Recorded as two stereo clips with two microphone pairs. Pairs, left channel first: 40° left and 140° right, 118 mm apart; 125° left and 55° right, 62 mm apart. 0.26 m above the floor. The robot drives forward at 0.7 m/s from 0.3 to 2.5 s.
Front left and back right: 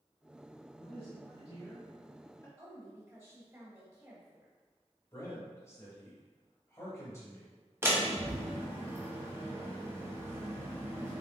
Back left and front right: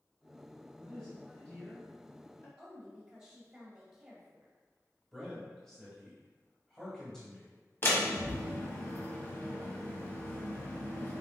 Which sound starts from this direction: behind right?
A woman speaking, at 2.6 s.